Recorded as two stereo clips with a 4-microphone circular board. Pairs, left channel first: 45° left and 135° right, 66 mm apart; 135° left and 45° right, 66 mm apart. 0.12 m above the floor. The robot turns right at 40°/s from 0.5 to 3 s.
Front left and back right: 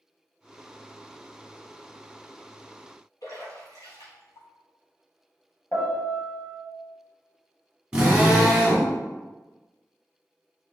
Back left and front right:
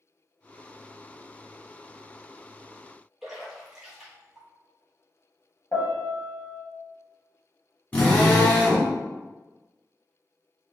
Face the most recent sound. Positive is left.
turn(degrees=170)